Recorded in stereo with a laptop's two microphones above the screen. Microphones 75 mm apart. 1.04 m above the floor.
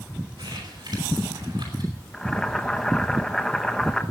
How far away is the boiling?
About 0.8 m.